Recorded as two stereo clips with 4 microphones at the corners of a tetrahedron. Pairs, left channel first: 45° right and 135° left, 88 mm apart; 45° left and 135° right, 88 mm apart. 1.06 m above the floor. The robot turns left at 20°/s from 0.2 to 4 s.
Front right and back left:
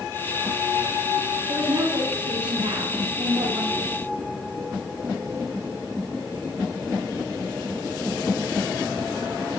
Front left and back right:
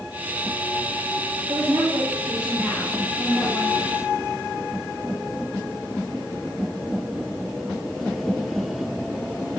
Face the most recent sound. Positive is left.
turn(degrees=115)